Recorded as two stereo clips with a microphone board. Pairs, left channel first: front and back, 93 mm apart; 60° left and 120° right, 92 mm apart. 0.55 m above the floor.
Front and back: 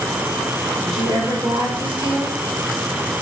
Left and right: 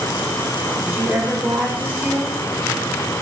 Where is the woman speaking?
175° left, 1.6 m.